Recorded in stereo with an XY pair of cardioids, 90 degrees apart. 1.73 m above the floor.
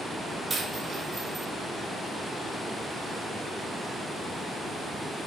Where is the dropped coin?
35° right, 4.5 m.